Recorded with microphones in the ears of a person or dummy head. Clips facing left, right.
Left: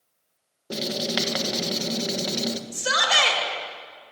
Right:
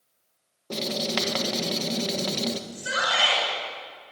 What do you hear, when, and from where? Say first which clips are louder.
0.7 s writing: left 1 dB; 10° left (ahead or behind), 1.4 m
2.7 s a shout: left 3 dB; 85° left, 6 m